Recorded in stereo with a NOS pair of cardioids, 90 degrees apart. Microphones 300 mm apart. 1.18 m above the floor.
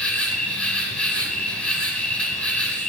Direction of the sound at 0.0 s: 5° left.